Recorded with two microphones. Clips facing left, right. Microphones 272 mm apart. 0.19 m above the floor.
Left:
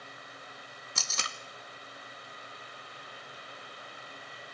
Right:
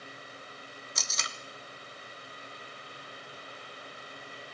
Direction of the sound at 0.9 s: 65° left (ahead or behind).